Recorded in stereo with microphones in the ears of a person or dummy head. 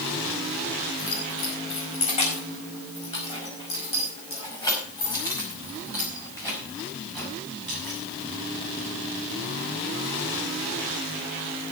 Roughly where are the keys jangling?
Left.